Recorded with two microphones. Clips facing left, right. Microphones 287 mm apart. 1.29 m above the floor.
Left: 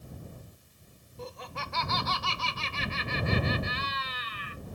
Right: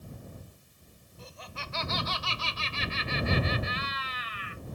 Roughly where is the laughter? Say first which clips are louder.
Left 6 dB; left.